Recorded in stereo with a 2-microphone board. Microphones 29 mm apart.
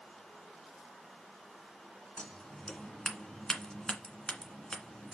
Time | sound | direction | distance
2.2 | scissors | 25° left (ahead or behind) | 1.8 m